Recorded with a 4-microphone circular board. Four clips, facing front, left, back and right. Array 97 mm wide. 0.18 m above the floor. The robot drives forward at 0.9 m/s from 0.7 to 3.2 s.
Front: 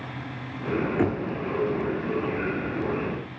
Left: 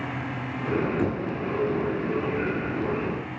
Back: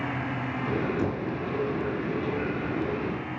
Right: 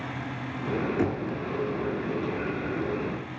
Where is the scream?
No scream in this recording.